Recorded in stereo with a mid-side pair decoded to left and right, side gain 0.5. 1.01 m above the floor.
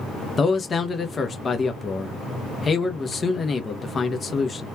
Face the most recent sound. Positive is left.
turn(degrees=35)